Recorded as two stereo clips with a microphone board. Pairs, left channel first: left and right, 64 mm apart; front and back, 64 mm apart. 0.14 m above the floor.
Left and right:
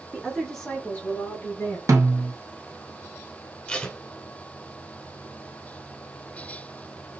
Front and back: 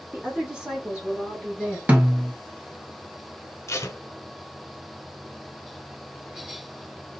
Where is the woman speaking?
155° right, 1.3 m; by 1.8 s 80° left, 1.6 m.